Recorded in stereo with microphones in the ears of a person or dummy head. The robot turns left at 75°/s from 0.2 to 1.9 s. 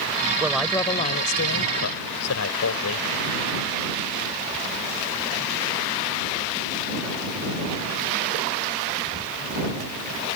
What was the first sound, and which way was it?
A woman speaking, 165° right.